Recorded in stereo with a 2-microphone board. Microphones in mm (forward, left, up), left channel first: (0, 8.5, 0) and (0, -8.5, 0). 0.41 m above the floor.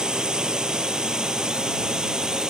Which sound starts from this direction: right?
A drone, at 0.0 s.